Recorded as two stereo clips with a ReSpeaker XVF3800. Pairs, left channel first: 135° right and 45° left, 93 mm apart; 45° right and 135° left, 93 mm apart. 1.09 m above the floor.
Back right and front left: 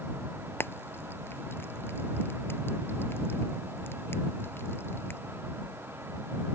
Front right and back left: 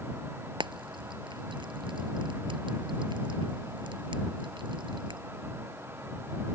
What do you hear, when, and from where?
0.6 s frying: 160° left